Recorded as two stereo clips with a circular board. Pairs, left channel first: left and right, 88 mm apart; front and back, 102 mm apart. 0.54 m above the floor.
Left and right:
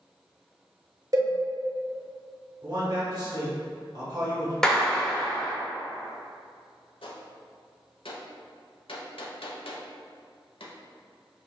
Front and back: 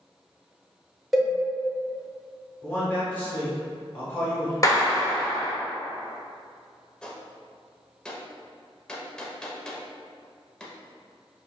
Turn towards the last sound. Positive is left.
turn(degrees=80)